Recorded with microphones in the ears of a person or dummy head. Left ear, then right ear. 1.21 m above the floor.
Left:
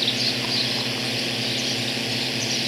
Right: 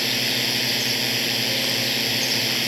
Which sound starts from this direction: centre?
A drone, at 0.0 s.